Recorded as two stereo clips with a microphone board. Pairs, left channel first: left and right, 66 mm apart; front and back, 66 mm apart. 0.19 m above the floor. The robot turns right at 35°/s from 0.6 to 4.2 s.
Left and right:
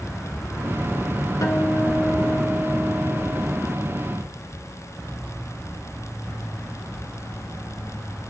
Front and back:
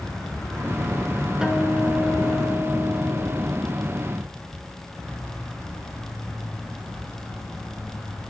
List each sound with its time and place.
1.4 s a guitar: 100° left, 1.2 m; by 3.5 s 175° left, 1.2 m